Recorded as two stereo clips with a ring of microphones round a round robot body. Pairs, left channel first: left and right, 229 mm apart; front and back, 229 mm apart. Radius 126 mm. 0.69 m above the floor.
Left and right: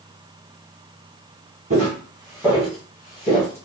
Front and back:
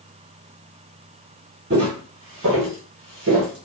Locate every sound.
1.7 s footsteps: 145° right, 1.1 m; by 3.7 s 150° left, 1.2 m